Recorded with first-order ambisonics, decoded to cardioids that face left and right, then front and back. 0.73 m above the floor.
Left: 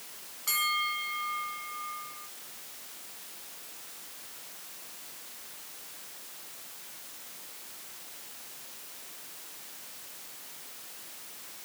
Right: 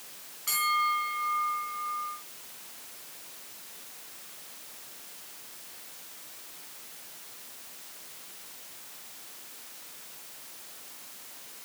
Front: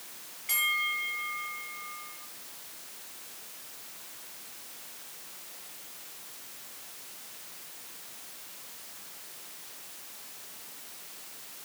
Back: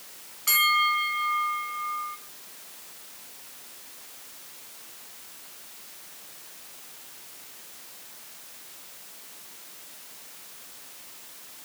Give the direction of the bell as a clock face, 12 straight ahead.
6 o'clock.